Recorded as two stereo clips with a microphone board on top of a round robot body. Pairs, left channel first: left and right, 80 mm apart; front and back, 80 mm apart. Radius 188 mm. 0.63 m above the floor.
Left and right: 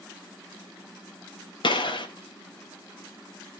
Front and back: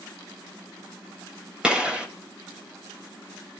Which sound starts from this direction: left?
A gunshot, at 1.6 s.